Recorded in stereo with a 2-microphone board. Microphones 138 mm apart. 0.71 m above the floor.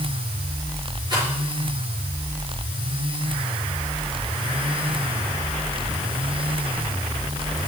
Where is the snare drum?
No snare drum in this recording.